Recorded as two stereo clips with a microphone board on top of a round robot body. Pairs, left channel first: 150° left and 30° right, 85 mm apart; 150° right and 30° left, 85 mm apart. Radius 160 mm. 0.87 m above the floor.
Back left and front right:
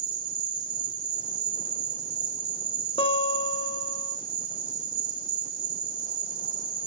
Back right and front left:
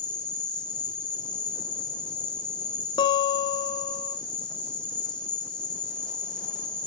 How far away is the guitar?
About 0.9 m.